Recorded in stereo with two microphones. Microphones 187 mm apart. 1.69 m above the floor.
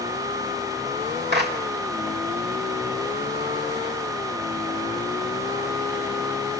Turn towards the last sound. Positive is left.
turn(degrees=-65)  # may be behind; listen again after turning